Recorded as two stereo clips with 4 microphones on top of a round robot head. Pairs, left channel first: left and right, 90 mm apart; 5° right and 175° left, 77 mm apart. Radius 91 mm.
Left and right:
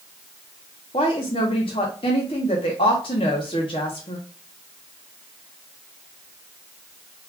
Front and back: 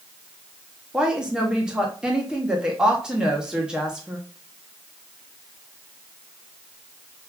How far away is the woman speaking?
About 0.8 m.